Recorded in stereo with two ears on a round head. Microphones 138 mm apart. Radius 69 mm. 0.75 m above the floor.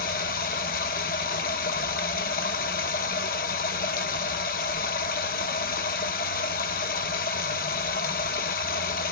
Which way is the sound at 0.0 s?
60° left (ahead or behind).